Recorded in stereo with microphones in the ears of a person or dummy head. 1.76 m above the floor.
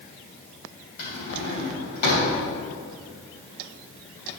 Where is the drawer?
60° left (ahead or behind), 3 m.